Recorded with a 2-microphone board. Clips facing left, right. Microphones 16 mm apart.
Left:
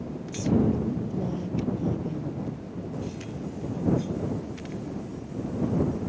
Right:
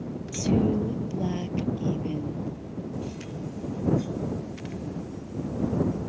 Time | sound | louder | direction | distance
0.3 | a woman speaking | even | 65° right (ahead or behind) | ?